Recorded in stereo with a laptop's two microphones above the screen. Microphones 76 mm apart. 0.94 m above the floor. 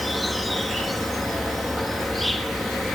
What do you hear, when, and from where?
0.0 s an insect: centre (ahead or behind), 1.5 m